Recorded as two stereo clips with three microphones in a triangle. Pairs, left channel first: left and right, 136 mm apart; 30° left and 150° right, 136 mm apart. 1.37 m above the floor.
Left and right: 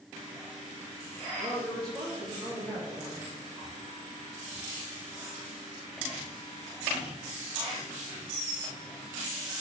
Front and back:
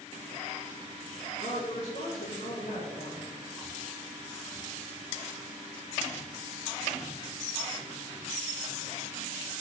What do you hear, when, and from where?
1.4 s a woman speaking: 10° right, 2.5 m; by 3.2 s 10° left, 4 m